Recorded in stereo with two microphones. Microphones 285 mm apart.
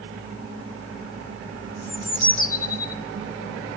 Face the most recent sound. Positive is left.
turn(degrees=30)  # may be behind; listen again after turning